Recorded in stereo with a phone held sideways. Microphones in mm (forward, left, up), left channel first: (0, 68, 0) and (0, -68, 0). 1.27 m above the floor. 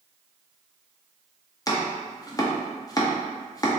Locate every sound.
1.7 s chopping: 25° left (ahead or behind), 0.5 m